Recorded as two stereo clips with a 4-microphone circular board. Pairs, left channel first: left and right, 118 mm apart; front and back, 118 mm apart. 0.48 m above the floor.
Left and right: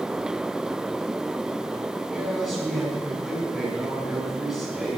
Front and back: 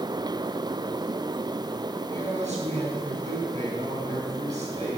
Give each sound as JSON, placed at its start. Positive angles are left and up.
{"t": 2.1, "sound": "a man speaking", "azimuth_deg": -175, "distance_m": 4.5}